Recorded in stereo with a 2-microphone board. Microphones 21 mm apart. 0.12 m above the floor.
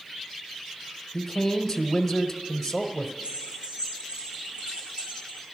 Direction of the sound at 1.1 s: 10° left (ahead or behind).